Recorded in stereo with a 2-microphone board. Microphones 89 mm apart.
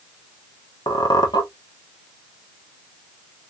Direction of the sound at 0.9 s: 50° left (ahead or behind).